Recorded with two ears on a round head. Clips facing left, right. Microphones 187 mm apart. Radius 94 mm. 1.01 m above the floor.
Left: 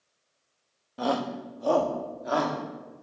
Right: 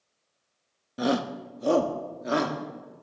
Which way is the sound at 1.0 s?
20° right (ahead or behind).